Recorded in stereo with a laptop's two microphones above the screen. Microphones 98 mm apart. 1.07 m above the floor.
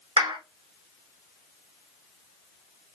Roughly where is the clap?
Right.